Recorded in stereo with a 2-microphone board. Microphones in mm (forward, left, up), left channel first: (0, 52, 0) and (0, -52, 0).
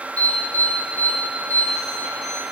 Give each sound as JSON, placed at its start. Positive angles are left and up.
{"t": 0.2, "sound": "an alarm", "side_deg": 80, "distance_m": 6.5}